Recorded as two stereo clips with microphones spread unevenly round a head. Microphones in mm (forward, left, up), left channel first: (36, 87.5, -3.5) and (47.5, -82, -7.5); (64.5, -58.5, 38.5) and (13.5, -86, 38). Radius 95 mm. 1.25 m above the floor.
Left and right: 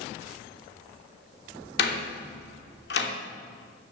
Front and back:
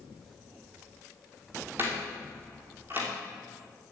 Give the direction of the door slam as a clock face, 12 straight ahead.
7 o'clock.